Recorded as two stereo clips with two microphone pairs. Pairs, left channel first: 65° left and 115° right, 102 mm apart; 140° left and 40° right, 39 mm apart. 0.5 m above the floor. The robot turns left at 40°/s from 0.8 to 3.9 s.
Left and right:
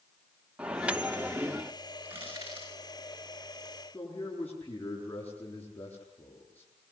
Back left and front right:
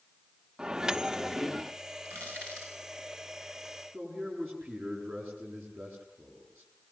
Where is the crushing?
45° right, 9 m; by 2.7 s 70° right, 9 m.